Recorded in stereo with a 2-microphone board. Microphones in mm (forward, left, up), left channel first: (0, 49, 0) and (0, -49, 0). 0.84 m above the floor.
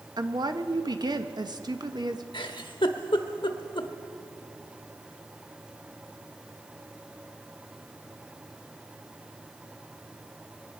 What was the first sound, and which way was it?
A woman speaking, 45° right (ahead or behind).